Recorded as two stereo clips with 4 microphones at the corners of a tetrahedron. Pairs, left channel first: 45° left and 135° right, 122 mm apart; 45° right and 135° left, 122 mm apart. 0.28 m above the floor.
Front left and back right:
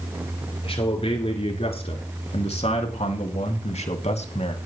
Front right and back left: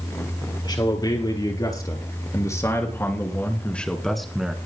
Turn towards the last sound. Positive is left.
turn(degrees=55)